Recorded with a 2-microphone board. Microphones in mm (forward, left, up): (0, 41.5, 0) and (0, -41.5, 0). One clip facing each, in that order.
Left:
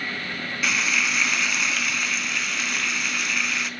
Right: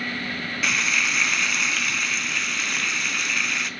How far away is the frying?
About 0.9 m.